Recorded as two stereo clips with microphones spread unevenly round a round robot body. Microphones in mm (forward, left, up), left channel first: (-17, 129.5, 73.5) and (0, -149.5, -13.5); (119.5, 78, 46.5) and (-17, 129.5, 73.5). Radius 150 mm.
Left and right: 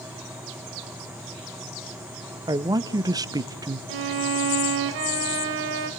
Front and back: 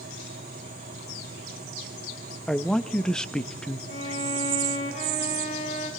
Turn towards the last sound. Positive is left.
turn(degrees=-85)